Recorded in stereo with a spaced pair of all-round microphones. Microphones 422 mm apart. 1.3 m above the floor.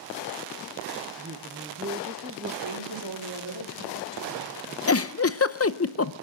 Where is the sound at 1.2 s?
30° right (ahead or behind), 1.2 m.